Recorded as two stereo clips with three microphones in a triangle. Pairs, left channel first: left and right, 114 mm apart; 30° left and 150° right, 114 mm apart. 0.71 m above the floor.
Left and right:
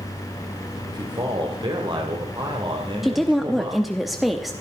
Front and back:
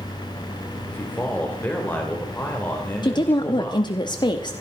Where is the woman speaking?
Straight ahead, 1.0 m.